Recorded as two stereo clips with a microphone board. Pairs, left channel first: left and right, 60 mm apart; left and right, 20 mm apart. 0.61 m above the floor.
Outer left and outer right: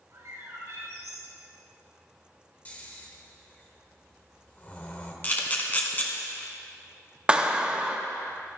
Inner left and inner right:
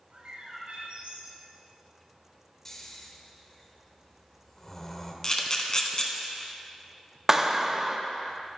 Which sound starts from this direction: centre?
A clap, at 7.3 s.